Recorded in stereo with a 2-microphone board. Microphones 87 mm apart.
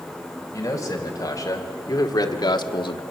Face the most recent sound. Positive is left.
turn(degrees=65)  # may be behind; listen again after turning